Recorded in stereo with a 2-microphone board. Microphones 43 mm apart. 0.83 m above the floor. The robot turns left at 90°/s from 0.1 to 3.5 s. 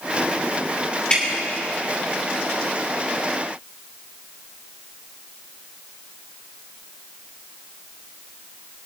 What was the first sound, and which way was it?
Dripping, 20° left (ahead or behind).